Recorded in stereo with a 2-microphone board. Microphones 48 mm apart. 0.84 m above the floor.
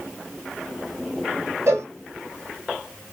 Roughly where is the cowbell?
Right.